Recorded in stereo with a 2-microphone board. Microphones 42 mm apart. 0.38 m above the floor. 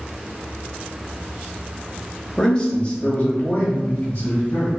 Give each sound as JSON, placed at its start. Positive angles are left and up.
{"t": 2.4, "sound": "a man speaking", "side_deg": 20, "distance_m": 0.9}